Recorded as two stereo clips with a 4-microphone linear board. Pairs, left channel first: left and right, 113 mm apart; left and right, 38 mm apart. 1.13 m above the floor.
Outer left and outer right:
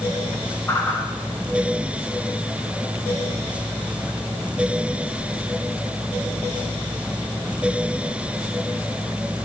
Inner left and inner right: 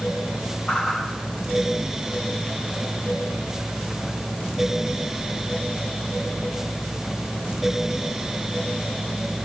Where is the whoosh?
20° left (ahead or behind), 7 m.